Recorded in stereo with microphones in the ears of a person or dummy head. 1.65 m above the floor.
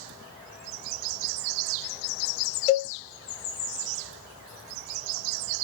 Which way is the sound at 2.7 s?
40° left (ahead or behind).